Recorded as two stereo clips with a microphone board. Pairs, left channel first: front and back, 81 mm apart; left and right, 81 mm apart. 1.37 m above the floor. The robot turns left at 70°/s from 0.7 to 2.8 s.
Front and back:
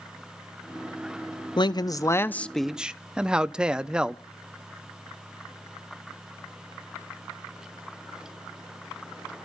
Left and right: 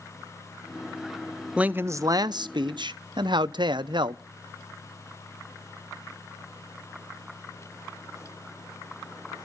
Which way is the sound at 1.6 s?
15° right.